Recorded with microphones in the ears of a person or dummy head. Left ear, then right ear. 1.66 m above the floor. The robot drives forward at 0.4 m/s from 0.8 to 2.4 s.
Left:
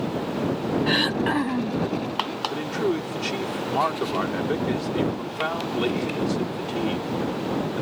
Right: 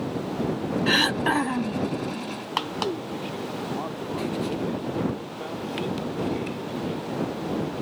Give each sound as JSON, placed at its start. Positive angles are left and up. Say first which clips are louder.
{"t": 0.9, "sound": "throat clearing", "louder": "right 2 dB", "side_deg": -30}
{"t": 2.5, "sound": "a man speaking", "louder": "even", "side_deg": 60}